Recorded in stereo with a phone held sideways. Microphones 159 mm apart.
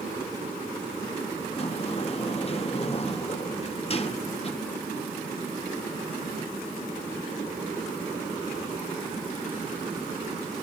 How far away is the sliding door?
About 1.6 m.